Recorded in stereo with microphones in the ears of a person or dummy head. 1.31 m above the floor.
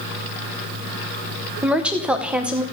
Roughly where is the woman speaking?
Centre.